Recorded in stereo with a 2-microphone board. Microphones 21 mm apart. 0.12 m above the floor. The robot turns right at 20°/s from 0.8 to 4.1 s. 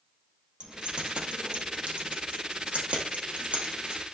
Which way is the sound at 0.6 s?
40° right (ahead or behind).